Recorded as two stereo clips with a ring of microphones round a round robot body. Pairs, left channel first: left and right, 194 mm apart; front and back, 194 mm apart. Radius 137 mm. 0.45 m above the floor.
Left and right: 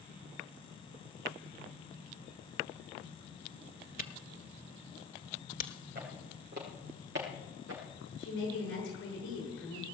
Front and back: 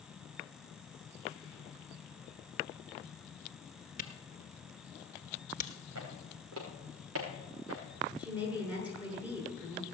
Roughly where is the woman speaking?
Left.